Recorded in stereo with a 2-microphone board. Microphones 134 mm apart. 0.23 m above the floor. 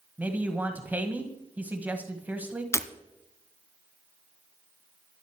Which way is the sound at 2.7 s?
20° left (ahead or behind).